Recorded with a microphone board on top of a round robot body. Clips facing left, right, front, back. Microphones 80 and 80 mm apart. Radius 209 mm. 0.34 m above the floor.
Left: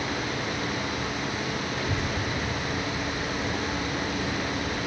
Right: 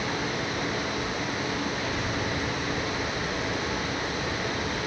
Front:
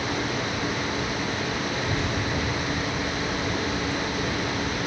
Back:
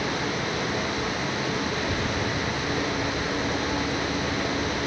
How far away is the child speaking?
About 3 m.